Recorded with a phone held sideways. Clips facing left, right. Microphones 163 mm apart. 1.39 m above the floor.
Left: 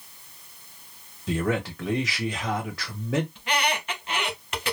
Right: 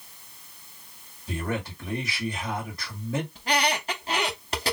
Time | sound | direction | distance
1.3 | a man speaking | 85° left | 1.1 m
3.4 | a squeak | 35° right (ahead or behind) | 0.9 m